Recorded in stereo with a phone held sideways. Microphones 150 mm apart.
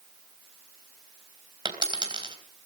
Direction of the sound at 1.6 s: 30° right (ahead or behind).